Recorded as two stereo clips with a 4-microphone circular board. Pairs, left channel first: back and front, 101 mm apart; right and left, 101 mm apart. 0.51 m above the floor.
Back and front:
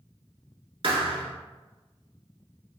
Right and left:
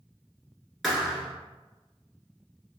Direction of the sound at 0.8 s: Straight ahead.